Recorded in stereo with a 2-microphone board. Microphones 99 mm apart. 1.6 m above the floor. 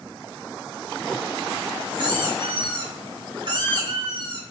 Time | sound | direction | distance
1.9 | a squeak | 50° right (ahead or behind) | 9 m